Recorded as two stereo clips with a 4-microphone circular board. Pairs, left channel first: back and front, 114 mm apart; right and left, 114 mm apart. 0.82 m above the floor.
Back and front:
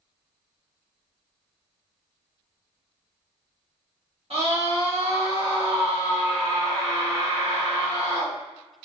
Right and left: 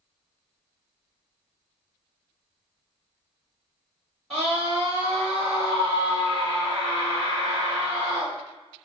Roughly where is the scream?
Ahead.